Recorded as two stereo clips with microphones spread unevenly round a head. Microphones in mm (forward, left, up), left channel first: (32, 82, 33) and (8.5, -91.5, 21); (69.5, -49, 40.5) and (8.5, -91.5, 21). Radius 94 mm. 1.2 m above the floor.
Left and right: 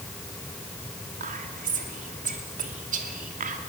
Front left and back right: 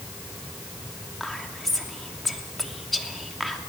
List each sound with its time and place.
1.2 s whispering: 55° right, 3 m